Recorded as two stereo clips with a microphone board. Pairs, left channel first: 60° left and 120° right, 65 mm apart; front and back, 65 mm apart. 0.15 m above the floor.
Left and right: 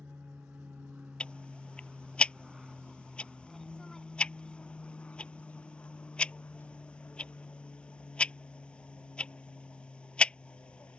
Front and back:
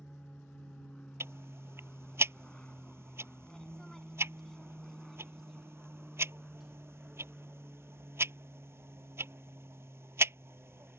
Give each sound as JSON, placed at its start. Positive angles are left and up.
{"t": 0.0, "sound": "an aircraft", "azimuth_deg": -65}
{"t": 1.2, "sound": "ticking", "azimuth_deg": 135}